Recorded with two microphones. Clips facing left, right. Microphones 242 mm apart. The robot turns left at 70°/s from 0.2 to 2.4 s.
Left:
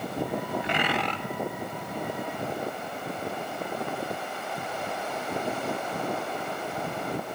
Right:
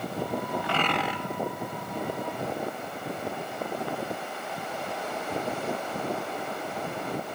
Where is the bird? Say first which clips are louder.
Even; 25° left, 1.0 m; by 1.2 s 15° right, 1.0 m.